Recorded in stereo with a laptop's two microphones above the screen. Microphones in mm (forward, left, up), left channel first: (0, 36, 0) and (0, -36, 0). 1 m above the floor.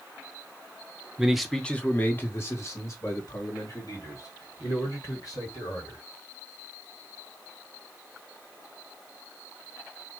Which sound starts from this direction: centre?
A man speaking, at 1.2 s.